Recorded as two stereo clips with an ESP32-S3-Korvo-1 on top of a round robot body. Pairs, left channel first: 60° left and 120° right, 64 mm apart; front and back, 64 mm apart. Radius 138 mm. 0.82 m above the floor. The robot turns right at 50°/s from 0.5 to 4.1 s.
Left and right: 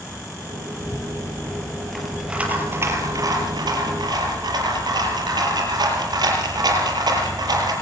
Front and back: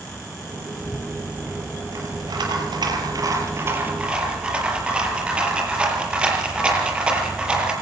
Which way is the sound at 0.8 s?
90° left.